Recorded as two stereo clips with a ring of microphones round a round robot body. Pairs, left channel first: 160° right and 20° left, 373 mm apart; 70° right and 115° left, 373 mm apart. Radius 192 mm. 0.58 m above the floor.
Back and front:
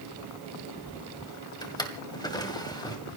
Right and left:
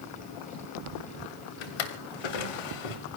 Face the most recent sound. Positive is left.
turn(degrees=-80)